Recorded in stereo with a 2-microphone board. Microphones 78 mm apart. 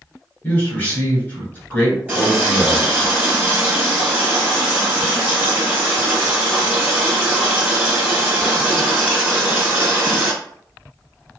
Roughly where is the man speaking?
Left.